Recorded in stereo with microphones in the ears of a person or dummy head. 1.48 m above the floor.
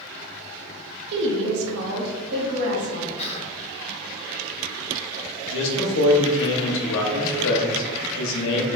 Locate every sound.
1.1 s a woman speaking: 60° right (ahead or behind), 0.7 m; by 3.1 s 55° right (ahead or behind), 1.3 m
3.2 s whispering: 35° left (ahead or behind), 1.0 m
5.5 s a man speaking: 80° left, 0.9 m